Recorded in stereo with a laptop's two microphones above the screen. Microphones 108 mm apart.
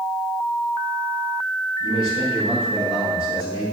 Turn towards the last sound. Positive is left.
turn(degrees=-70)  # may be behind; listen again after turning